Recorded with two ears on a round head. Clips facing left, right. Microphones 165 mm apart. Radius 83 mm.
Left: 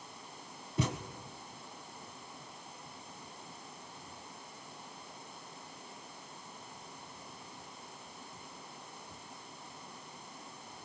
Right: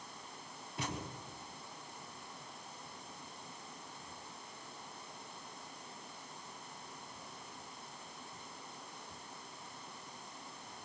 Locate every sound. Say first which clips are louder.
0.8 s a thud: left 7 dB; 80° left, 2 m